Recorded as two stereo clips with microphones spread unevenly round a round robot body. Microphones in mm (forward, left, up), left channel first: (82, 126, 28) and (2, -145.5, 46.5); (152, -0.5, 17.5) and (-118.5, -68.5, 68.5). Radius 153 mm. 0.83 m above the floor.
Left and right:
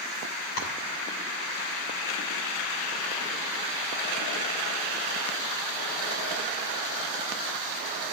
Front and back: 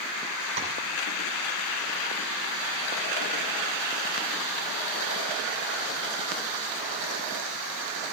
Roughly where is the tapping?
Behind left.